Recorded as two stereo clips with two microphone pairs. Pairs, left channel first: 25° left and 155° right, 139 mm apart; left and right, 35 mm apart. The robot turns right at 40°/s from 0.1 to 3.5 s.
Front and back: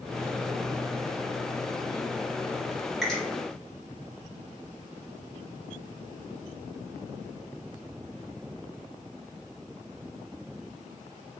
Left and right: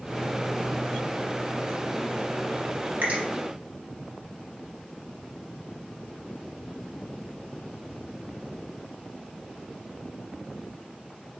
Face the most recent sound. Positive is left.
turn(degrees=-45)